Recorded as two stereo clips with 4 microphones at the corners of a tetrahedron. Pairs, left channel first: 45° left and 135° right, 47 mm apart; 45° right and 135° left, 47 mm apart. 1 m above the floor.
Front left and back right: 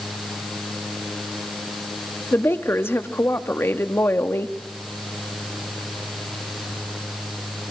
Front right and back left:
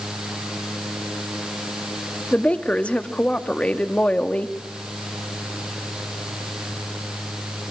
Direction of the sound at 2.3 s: 15° left.